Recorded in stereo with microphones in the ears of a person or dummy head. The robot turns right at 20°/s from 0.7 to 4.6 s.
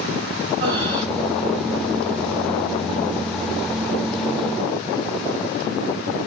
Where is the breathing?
25° right (ahead or behind), 0.9 m; by 1.1 s 35° right (ahead or behind), 0.9 m.